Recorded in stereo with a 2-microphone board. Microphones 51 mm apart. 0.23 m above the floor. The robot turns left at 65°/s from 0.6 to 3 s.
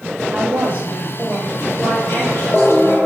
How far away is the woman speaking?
About 5.5 m.